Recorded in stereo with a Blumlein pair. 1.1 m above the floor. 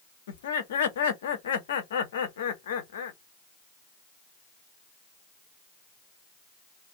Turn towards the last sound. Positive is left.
turn(degrees=60)